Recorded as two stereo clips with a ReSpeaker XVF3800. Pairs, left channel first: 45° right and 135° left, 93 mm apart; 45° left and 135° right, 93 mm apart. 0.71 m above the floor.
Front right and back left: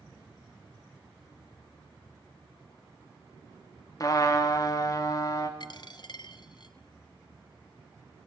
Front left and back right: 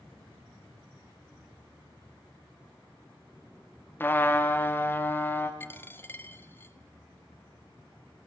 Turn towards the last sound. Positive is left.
turn(degrees=-20)